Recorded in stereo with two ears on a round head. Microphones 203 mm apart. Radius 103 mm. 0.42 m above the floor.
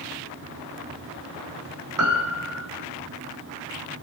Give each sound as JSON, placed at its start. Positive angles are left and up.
{"t": 2.0, "sound": "a piano", "side_deg": -70, "distance_m": 4.0}